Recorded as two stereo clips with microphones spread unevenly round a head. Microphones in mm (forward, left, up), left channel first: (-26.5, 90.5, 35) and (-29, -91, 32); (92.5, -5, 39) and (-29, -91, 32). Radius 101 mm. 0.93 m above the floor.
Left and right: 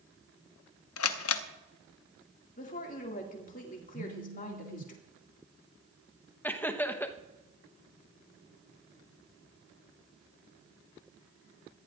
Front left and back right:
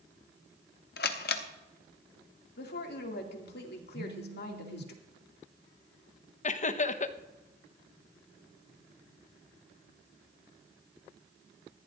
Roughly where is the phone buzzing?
Right.